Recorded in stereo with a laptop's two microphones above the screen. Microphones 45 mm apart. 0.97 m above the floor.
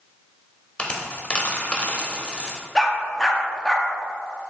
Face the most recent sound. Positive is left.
turn(degrees=10)  # may be behind; listen again after turning